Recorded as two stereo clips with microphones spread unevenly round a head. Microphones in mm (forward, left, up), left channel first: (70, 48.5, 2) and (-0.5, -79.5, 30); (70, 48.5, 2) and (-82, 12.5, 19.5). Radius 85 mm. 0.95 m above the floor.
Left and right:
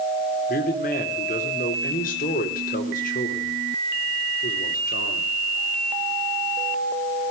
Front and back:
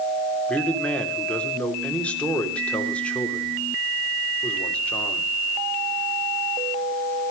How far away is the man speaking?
About 3 m.